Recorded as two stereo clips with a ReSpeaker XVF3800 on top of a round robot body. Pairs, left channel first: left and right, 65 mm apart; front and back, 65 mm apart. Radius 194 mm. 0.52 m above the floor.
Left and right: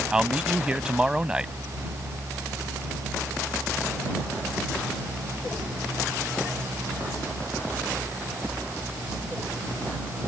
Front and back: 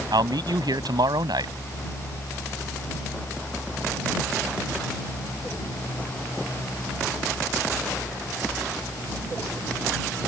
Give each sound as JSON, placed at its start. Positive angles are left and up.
{"t": 0.1, "sound": "a man speaking", "azimuth_deg": -170}